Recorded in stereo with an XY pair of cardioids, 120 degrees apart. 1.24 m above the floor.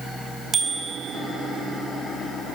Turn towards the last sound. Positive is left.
turn(degrees=-35)